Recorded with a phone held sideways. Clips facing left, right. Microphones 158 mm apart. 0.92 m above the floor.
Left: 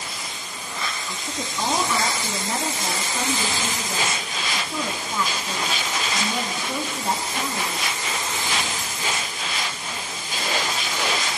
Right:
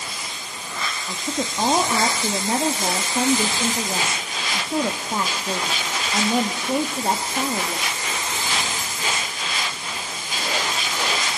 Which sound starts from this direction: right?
A woman speaking, at 1.1 s.